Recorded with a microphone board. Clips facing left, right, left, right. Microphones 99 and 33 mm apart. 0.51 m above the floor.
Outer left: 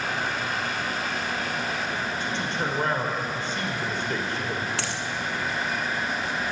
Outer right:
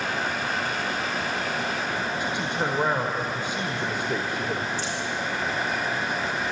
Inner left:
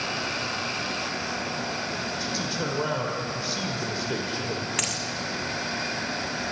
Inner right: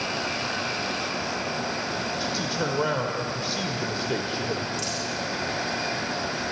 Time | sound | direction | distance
2.2 | a man speaking | 15° right (ahead or behind) | 1.6 m
4.8 | a dropped coin | 75° left (ahead or behind) | 1.7 m